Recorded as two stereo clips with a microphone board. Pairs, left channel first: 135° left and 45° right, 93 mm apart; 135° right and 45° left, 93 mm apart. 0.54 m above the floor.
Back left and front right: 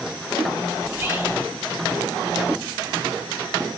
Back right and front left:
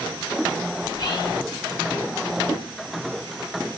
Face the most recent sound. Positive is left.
turn(degrees=-110)